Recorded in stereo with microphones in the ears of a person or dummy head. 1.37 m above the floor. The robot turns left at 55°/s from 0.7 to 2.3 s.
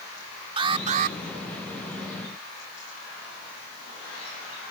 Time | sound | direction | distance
0.6 | an alarm | 35° right (ahead or behind) | ?